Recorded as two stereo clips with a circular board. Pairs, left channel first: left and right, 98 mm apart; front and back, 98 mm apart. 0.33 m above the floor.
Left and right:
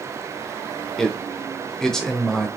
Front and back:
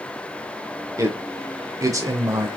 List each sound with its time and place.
1.0 s a man speaking: 170° left, 0.9 m